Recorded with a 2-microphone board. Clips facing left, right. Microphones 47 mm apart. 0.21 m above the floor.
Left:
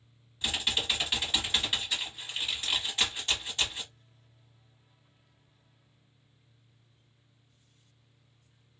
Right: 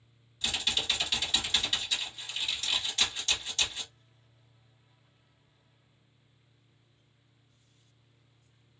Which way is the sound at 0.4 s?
15° left (ahead or behind).